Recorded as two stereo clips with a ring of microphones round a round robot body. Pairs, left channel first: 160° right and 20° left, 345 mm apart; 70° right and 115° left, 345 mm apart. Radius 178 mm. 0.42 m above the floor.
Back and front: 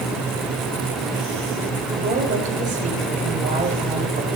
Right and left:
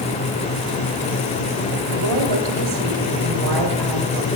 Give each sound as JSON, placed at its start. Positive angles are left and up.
{"t": 1.9, "sound": "a woman speaking", "azimuth_deg": 90, "distance_m": 8.0}